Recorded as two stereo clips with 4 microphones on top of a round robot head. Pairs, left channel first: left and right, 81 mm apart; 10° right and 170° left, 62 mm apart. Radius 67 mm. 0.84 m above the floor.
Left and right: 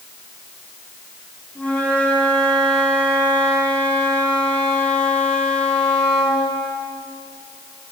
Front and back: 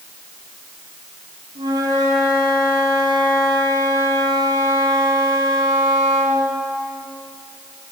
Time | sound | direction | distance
1.6 | a flute | 165° left | 8 m